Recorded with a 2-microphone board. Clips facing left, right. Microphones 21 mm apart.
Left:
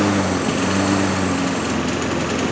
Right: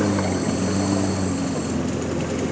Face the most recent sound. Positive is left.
turn(degrees=45)  # may be behind; listen again after turning